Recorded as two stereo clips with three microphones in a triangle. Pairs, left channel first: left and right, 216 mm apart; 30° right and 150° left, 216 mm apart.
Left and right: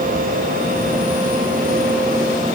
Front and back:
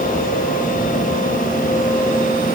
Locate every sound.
Only background noise.